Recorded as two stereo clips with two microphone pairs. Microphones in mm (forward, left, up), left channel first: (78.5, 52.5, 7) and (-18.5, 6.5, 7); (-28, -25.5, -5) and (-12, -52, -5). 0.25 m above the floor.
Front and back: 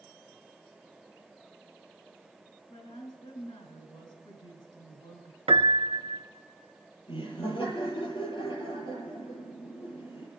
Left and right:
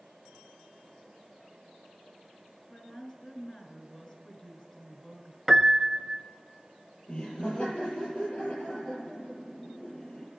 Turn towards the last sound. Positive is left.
turn(degrees=70)